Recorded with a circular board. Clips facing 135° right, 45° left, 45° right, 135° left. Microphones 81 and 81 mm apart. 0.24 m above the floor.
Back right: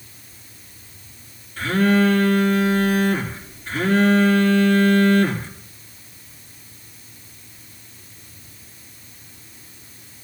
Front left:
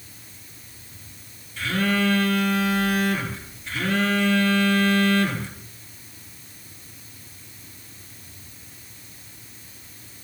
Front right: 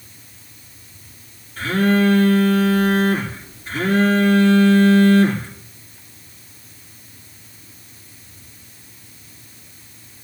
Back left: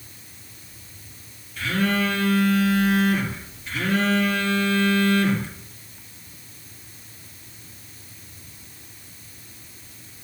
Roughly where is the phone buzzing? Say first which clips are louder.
Back right 6 dB, front right 6 dB; right.